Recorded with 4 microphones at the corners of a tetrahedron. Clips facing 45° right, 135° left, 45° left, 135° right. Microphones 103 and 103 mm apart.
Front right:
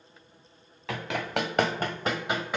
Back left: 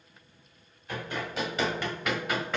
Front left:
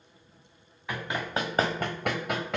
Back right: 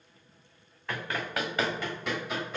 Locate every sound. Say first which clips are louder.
0.9 s running footsteps: front right 4 dB, front left 2 dB; 40° right, 1.1 m; by 2.6 s 35° left, 1.2 m